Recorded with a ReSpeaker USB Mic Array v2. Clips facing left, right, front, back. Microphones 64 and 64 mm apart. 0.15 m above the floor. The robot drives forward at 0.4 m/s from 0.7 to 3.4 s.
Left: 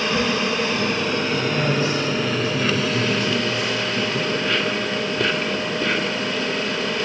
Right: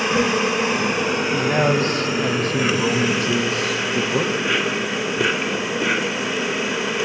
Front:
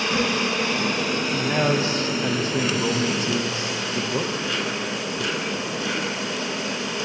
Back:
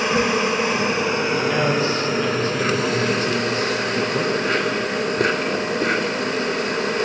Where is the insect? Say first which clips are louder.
Right 2 dB, back 4 dB; 140° right, 1.7 m; by 7.0 s 165° right, 2.5 m.